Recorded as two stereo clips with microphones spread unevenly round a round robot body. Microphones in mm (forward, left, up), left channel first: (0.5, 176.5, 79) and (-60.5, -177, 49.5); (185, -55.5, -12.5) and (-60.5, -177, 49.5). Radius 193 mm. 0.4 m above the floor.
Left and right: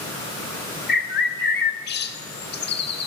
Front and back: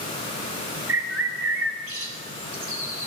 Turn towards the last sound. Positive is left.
turn(degrees=145)